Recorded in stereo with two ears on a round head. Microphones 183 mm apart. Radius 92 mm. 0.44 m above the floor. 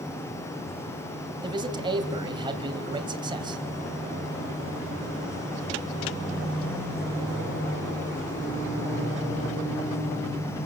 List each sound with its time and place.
1.4 s a man speaking: 20° right (ahead or behind), 2.5 m